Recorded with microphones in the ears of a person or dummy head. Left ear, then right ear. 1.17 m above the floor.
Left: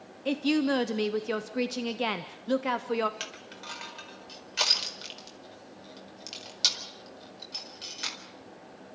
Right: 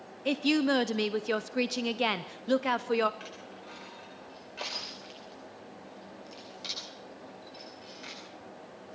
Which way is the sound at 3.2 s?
55° left (ahead or behind).